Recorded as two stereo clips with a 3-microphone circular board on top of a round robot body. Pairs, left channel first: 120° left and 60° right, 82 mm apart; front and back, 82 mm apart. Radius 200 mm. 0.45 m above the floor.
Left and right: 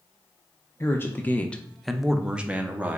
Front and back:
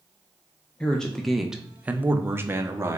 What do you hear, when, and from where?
0.8 s a man speaking: 70° left, 0.8 m; by 3.0 s 125° right, 1.0 m